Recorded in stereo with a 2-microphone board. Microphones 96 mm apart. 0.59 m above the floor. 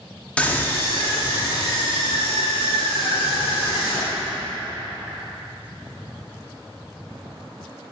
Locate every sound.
0.4 s a scream: 10° left (ahead or behind), 0.8 m; by 4.3 s 45° left (ahead or behind), 5 m